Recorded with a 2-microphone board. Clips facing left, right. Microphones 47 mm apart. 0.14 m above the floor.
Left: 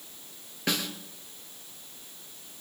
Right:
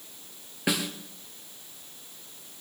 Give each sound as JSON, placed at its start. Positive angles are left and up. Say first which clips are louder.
{"t": 0.7, "sound": "a snare drum", "louder": "right 2 dB", "side_deg": -10, "distance_m": 2.5}